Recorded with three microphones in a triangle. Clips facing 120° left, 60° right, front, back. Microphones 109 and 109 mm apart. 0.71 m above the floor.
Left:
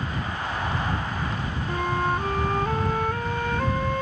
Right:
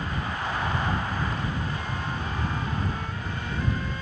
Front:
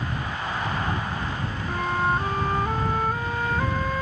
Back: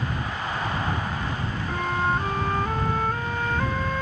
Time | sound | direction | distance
1.7 | a flute | 85° left | ?